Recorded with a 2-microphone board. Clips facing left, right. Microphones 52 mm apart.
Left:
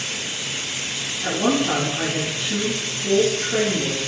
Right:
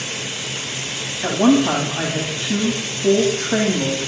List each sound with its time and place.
1.2 s a woman speaking: 70° right (ahead or behind), 10 m